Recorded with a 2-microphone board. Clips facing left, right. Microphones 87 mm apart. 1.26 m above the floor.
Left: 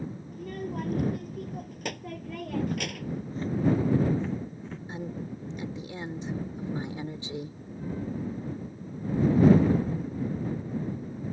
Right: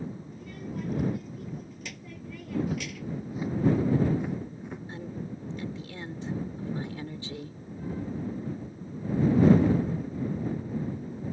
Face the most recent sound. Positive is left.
turn(degrees=20)  # may be behind; listen again after turning